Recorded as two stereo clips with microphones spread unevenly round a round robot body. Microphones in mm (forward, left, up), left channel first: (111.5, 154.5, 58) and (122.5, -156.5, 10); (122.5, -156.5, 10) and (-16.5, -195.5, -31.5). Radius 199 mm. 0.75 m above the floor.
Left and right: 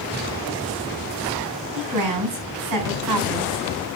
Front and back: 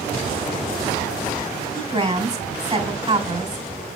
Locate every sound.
1.8 s a woman speaking: 110° right, 3 m